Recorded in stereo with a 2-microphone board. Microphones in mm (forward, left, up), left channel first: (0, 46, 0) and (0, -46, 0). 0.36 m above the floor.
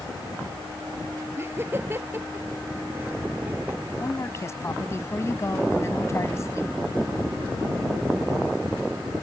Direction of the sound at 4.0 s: 35° left (ahead or behind).